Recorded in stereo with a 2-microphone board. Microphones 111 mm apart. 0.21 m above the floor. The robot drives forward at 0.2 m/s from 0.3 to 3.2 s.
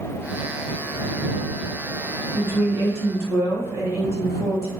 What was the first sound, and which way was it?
A woman speaking, 20° right (ahead or behind).